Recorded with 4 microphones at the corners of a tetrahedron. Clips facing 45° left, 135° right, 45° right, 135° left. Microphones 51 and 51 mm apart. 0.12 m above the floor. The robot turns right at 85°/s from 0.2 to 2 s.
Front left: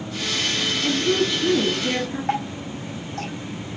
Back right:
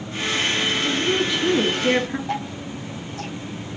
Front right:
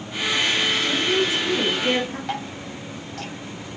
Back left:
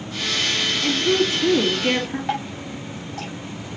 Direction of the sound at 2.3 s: 55° left.